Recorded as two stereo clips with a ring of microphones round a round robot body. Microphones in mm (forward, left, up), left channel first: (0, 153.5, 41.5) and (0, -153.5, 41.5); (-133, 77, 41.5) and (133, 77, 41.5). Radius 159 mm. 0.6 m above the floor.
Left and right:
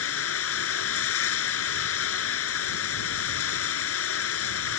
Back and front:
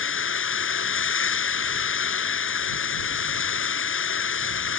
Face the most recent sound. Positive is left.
turn(degrees=140)